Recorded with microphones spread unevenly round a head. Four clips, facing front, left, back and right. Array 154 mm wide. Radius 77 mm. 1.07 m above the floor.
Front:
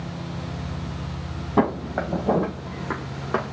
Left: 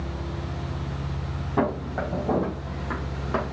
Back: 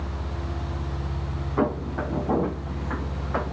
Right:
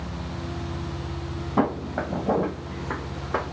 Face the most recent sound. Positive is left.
turn(degrees=5)